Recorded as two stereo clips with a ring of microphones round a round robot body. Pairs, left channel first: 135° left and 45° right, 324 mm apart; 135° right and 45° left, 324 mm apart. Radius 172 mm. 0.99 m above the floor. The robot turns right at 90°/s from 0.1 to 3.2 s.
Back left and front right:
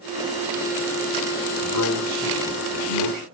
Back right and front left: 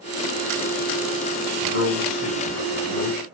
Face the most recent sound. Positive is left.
turn(degrees=-60)